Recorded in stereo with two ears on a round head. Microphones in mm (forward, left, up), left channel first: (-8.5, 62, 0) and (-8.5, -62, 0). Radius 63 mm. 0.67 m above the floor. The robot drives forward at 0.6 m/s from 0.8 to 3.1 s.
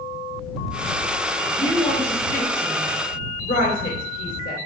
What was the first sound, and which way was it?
A woman speaking, 45° left (ahead or behind).